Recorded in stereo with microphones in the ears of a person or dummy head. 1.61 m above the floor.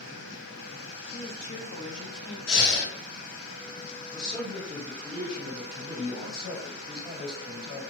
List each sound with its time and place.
1.1 s a woman speaking: 55° left (ahead or behind), 1.0 m; by 2.4 s 65° left (ahead or behind), 0.7 m
2.5 s breathing: 75° left (ahead or behind), 0.9 m
4.1 s a man speaking: 40° left (ahead or behind), 2.0 m